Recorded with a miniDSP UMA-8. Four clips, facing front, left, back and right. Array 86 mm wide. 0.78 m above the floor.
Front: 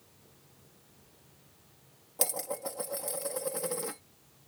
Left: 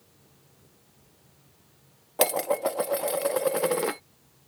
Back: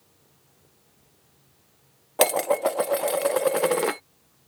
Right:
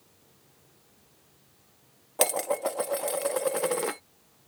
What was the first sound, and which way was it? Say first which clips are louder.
Dishes clattering: left 2 dB, back 15 dB; 175° left.